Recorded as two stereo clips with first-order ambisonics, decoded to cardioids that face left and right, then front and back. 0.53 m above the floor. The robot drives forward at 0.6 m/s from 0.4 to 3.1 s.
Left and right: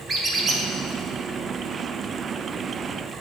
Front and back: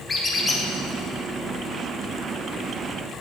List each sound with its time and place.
0.1 s a squeak: 55° right, 0.6 m; by 0.6 s 90° right, 0.6 m